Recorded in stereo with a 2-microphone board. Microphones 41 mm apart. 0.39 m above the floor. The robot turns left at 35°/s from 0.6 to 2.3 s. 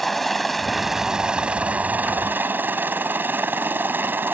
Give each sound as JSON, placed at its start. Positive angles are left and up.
{"t": 0.0, "sound": "a helicopter", "side_deg": 5}